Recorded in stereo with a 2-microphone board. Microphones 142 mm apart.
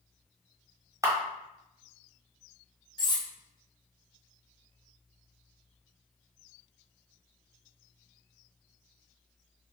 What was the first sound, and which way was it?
A camera shutter, 20° right (ahead or behind).